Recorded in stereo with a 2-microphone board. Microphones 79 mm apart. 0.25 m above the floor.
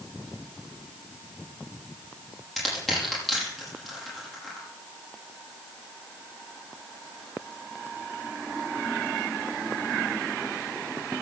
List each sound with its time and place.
2.6 s crushing: centre (ahead or behind), 8.5 m